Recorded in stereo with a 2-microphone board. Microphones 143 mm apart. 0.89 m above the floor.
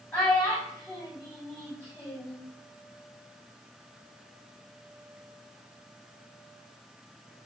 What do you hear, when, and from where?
0.1 s a child speaking: 10° left (ahead or behind), 1.7 m